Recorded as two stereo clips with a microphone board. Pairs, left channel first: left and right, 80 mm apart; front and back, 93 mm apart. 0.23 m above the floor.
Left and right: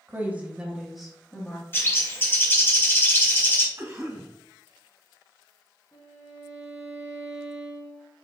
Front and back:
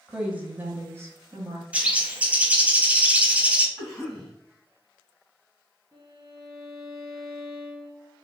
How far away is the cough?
About 1.8 m.